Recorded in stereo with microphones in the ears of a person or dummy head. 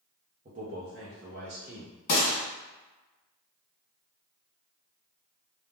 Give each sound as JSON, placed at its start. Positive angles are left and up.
{"t": 0.5, "sound": "a man speaking", "side_deg": -30, "distance_m": 0.6}
{"t": 2.1, "sound": "a gunshot", "side_deg": 40, "distance_m": 1.4}